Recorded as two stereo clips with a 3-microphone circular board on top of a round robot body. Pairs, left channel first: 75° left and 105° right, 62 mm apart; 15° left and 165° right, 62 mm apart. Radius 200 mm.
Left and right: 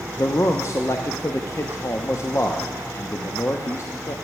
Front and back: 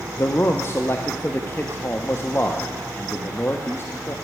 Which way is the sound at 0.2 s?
55° left.